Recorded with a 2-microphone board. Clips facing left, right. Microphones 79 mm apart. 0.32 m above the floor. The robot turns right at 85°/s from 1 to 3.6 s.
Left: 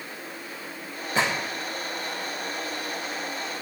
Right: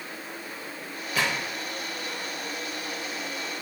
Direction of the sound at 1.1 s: 30° left (ahead or behind).